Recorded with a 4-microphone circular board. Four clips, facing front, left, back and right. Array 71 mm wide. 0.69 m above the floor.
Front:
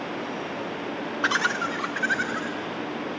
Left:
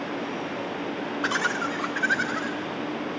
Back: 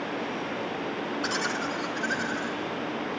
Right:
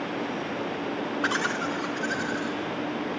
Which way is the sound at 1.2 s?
10° right.